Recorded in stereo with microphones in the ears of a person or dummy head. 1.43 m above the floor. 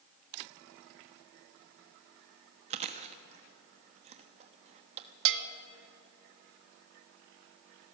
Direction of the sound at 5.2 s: 65° right (ahead or behind).